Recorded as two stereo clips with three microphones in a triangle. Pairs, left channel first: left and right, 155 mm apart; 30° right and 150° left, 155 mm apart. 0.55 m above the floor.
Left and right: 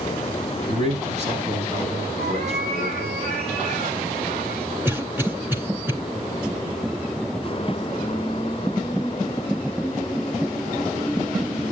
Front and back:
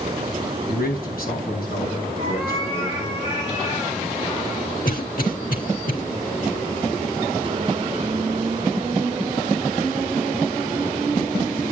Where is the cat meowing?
85° right, 6 m.